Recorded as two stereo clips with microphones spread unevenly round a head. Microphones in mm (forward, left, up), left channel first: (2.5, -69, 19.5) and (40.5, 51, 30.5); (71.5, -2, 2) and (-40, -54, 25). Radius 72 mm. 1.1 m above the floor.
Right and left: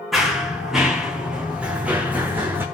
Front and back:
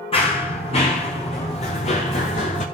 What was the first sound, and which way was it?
Running footsteps, 15° right.